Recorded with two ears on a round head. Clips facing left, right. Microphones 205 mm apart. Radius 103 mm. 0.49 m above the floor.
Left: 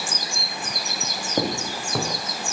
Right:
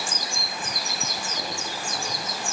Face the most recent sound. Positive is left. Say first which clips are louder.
# left 8 dB
turn(degrees=45)  # may be behind; listen again after turning